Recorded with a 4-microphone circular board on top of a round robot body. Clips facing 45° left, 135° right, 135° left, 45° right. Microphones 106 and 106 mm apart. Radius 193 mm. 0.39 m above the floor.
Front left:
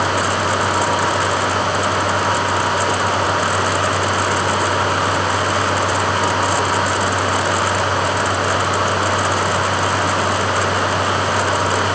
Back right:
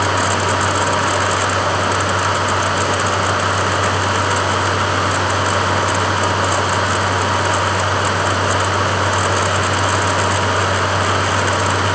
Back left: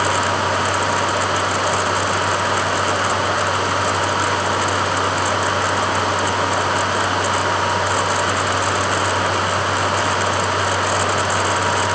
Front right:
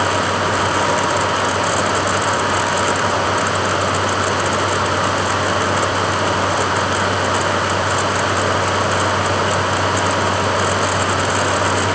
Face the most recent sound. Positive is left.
No sound to turn to.